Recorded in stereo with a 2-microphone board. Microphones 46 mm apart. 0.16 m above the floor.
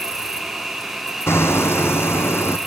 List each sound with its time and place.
0.0 s an insect: 10° right (ahead or behind), 1.7 m
1.3 s hammering: 70° left (ahead or behind), 1.9 m